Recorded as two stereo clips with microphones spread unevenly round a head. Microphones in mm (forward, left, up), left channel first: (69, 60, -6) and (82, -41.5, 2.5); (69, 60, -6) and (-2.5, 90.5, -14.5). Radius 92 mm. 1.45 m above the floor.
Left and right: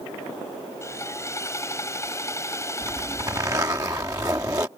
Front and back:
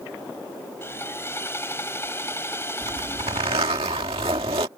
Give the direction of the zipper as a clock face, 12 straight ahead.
5 o'clock.